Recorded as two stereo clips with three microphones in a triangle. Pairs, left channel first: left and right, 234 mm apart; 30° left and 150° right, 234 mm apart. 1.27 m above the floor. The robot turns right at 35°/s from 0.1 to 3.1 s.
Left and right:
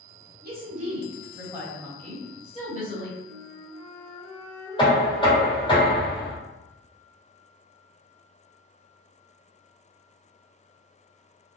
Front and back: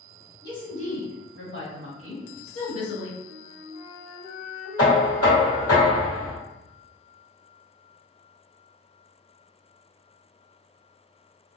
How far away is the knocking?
About 1.2 m.